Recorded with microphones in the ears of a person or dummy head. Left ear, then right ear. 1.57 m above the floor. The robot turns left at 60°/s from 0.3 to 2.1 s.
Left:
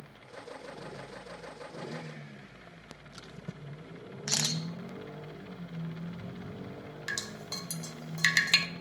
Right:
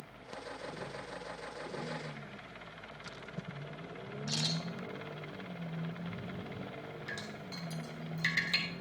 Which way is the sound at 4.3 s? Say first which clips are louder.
Left 5 dB; 65° left (ahead or behind).